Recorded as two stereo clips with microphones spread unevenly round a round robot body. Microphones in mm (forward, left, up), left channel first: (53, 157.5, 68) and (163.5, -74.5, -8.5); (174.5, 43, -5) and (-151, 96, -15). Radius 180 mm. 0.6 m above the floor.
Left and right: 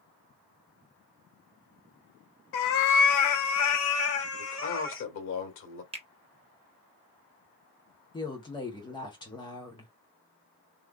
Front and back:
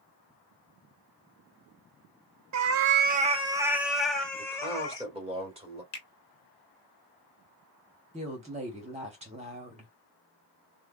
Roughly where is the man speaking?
Left.